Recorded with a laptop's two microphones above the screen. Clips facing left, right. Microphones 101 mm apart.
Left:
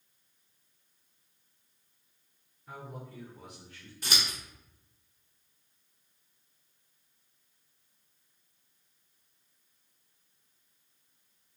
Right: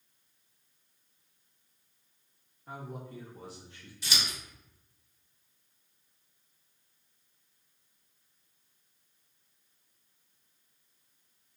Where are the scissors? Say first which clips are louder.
Left 1 dB; 50° left (ahead or behind), 0.8 m.